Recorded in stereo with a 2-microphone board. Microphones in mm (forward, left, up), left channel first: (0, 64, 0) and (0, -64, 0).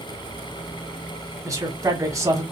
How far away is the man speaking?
About 1.1 m.